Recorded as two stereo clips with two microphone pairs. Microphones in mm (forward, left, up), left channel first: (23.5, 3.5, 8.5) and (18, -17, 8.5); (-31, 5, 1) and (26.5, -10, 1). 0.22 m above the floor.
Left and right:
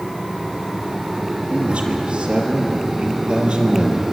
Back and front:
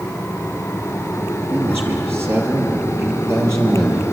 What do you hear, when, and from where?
1.5 s a man speaking: 65° right, 6 m; by 4.0 s 50° right, 6.5 m